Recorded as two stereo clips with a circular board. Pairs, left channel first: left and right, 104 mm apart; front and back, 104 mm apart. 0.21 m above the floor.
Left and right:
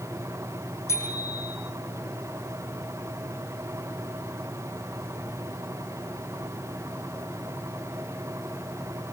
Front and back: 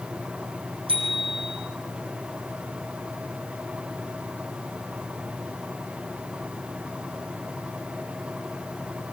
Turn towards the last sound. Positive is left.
turn(degrees=150)